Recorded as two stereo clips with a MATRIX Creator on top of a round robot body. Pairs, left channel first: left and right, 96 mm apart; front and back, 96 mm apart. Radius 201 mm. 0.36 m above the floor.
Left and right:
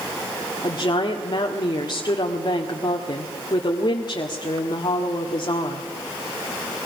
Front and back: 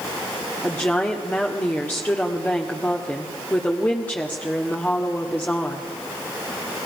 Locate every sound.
0.6 s a woman speaking: 70° left, 2 m